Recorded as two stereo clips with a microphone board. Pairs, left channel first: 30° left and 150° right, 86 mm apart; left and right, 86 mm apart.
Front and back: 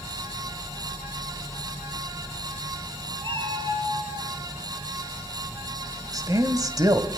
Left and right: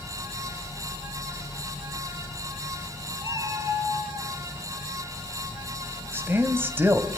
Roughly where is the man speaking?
Behind right.